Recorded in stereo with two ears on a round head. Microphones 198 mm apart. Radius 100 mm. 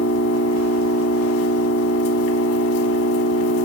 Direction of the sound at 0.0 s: 70° left (ahead or behind).